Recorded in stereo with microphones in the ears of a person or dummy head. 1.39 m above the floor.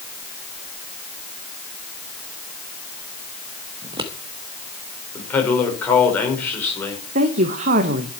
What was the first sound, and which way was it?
Scissors, 30° right (ahead or behind).